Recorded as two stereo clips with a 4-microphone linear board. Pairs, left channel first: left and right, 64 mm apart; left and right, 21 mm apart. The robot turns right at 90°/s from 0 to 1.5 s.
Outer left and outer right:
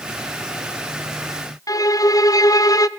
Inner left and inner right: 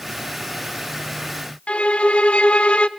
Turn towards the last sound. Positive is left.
turn(degrees=70)  # may be behind; listen again after turning